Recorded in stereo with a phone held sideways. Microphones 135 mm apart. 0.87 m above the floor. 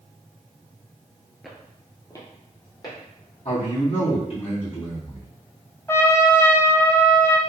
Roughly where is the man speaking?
Left.